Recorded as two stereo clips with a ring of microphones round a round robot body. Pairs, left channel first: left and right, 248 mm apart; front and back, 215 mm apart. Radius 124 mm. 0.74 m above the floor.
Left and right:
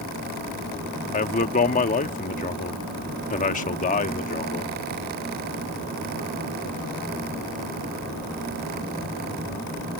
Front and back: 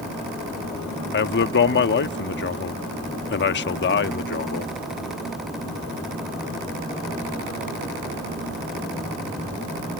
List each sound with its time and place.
1.1 s a man speaking: 30° left